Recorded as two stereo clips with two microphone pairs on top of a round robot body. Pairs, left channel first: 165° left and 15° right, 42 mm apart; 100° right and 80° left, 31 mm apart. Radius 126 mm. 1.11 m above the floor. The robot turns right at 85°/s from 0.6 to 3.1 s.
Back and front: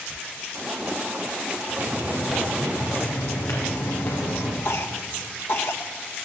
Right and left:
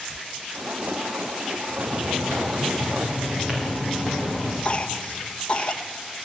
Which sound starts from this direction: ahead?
Footsteps, at 1.7 s.